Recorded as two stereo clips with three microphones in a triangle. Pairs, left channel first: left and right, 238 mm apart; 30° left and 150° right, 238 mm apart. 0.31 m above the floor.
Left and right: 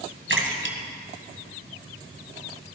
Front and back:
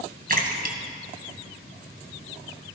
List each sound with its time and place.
0.3 s a splash: 110° right, 2 m